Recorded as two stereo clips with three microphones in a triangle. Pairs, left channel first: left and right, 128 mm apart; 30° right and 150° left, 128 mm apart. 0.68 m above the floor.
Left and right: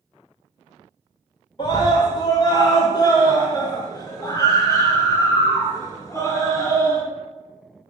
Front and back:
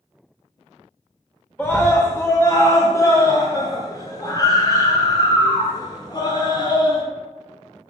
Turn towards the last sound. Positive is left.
turn(degrees=20)